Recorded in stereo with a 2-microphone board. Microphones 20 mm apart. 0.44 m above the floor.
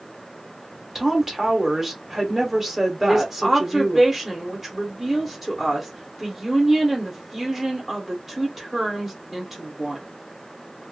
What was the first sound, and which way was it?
A woman speaking, 20° right (ahead or behind).